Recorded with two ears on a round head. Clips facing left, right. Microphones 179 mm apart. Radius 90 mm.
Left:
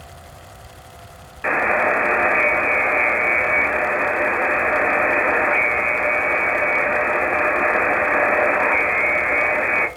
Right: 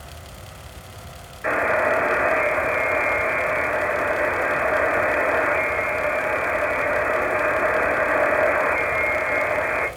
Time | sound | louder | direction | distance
1.4 | a buzzer | left 1 dB | 60° left (ahead or behind) | 0.8 m